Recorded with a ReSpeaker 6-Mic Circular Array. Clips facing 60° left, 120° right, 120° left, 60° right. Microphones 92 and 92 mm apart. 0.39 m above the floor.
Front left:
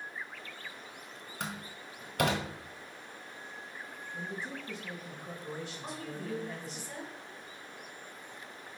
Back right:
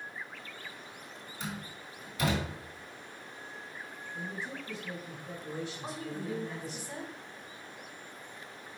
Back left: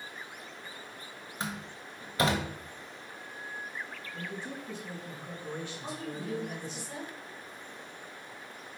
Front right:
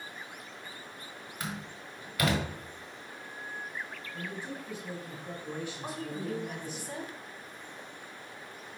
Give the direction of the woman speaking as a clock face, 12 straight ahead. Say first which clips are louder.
Back right 2 dB, front right 2 dB; 2 o'clock.